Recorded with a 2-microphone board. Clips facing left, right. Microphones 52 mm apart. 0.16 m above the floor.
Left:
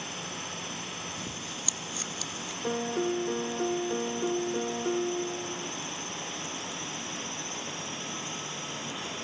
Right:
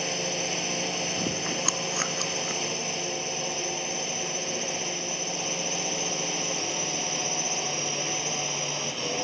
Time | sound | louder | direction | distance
0.0 | a drone | right 8 dB | 65° right (ahead or behind) | ?
1.2 | chewing | right 9 dB | 55° right (ahead or behind) | ?
2.6 | a piano | left 3 dB | 50° left (ahead or behind) | ?